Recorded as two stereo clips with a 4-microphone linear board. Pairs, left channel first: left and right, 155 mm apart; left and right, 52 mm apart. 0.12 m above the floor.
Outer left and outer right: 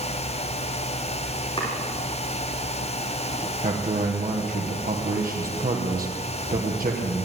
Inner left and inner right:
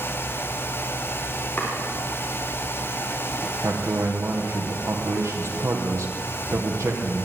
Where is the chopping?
30° left (ahead or behind), 6 m.